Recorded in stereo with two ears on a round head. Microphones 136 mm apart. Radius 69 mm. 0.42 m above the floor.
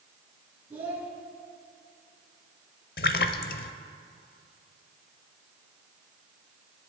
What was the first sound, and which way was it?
A child speaking, 15° right (ahead or behind).